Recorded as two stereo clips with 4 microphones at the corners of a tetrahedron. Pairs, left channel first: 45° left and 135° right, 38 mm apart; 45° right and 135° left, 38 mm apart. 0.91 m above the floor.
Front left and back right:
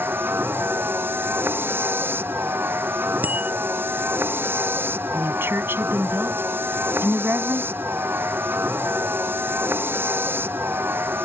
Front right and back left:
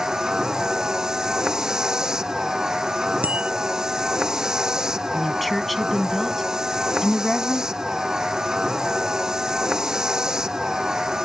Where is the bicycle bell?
175° right.